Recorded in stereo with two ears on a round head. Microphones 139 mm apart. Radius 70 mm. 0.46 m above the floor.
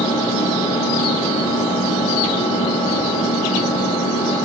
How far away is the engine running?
About 2 m.